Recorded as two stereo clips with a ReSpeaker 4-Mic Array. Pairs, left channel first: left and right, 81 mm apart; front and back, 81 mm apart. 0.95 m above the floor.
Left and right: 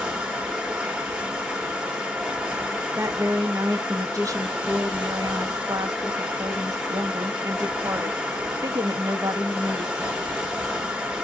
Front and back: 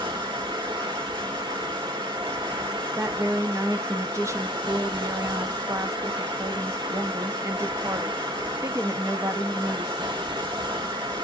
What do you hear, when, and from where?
0.0 s running water: 170° right, 1.1 m
3.0 s a woman speaking: 130° right, 0.7 m